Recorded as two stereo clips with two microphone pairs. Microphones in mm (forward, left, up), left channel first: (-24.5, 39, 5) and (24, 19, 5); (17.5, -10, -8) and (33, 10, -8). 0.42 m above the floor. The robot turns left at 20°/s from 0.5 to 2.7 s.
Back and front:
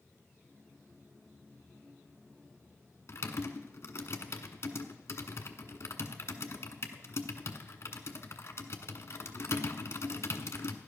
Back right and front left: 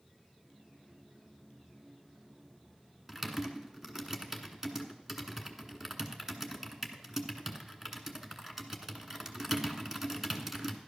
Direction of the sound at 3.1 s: 125° left.